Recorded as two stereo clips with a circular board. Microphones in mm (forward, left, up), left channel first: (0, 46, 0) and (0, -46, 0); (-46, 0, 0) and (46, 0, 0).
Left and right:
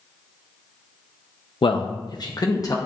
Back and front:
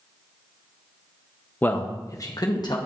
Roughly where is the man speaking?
Left.